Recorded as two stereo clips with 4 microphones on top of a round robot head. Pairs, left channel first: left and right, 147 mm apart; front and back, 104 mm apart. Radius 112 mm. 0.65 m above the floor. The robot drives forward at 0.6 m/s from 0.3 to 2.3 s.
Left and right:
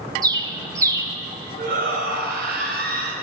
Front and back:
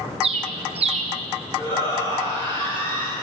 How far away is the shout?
About 4 m.